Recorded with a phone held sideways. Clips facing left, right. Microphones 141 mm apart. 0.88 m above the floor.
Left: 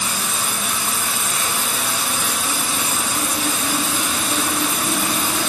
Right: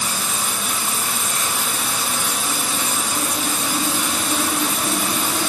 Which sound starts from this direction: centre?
Running water, at 0.0 s.